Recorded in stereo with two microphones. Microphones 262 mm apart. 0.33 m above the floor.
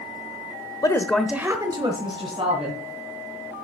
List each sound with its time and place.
0.8 s a woman speaking: 15° left (ahead or behind), 0.9 m; by 2.8 s 25° right (ahead or behind), 2.5 m